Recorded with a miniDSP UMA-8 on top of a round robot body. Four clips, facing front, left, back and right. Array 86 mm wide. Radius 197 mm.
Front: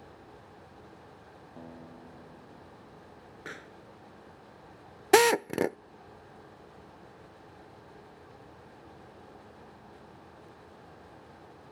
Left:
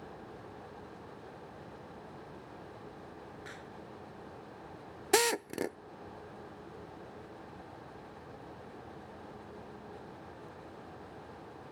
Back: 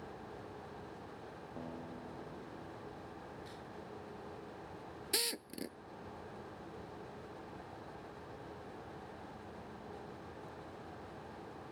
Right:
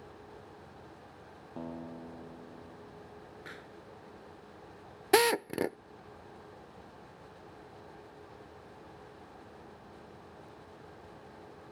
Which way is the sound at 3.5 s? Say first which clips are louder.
Left 1 dB, front 5 dB; 5° right.